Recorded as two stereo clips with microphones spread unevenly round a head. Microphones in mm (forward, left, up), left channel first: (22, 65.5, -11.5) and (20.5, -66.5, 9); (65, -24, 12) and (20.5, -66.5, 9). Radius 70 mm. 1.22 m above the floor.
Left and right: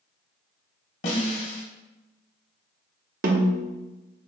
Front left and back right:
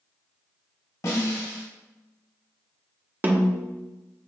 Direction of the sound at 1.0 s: 80° left.